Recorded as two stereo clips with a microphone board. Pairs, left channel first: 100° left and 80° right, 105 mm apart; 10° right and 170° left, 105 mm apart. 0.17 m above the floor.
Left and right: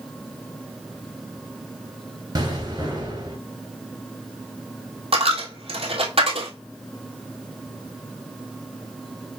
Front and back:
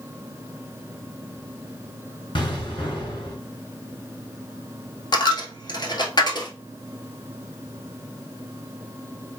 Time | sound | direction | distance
2.4 | an explosion | 40° right | 2.5 m
5.1 | a dropped coin | 60° right | 1.2 m